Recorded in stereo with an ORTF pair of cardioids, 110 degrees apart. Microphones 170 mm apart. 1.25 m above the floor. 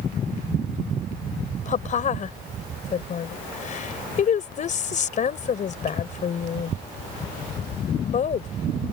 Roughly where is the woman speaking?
Ahead left.